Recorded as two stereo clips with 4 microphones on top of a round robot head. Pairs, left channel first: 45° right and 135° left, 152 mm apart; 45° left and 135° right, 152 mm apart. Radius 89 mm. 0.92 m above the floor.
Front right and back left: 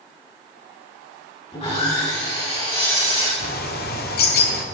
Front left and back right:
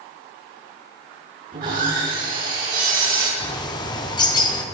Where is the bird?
20° right, 1.5 m.